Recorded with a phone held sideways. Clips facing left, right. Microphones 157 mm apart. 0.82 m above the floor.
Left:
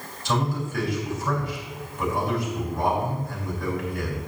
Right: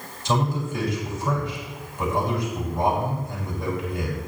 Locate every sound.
0.2 s a man speaking: 20° right (ahead or behind), 4.5 m